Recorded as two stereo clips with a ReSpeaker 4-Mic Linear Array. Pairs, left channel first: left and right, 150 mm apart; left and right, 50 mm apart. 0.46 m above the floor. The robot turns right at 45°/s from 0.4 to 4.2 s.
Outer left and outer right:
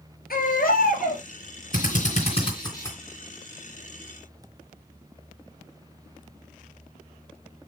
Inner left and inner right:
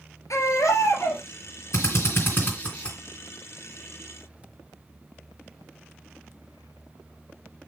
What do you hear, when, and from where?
0.3 s a baby crying: 80° left, 2.5 m; by 1.2 s 120° left, 2.5 m
1.7 s a drill: 70° left (ahead or behind), 3 m; by 3.0 s 15° left (ahead or behind), 3 m